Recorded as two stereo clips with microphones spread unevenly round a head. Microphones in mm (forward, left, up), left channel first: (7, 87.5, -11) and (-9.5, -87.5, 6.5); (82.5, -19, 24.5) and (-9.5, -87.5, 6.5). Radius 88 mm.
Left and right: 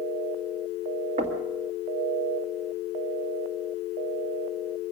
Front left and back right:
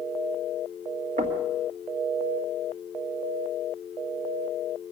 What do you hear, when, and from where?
1.2 s knocking: 150° right, 1.8 m